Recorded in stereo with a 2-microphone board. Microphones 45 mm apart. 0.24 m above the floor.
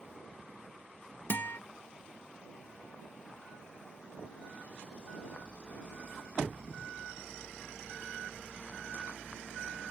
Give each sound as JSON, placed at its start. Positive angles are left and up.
{"t": 1.3, "sound": "a guitar", "side_deg": 55}